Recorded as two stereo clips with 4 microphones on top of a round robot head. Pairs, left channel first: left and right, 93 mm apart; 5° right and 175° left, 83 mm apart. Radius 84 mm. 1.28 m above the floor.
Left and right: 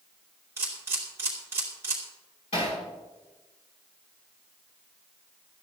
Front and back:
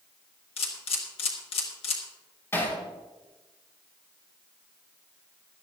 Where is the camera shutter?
20° right, 2 m.